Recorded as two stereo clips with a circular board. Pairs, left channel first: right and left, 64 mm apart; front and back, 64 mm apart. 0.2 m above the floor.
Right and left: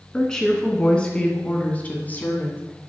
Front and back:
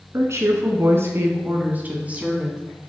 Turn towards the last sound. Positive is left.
turn(degrees=-115)